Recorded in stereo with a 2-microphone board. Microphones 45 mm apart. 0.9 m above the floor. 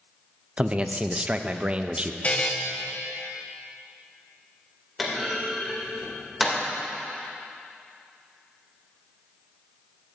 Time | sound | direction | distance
0.6 | a man speaking | 30° right (ahead or behind) | 0.5 m
2.2 | a buzzer | 35° left (ahead or behind) | 1.2 m
5.0 | a clunk | centre (ahead or behind) | 2.5 m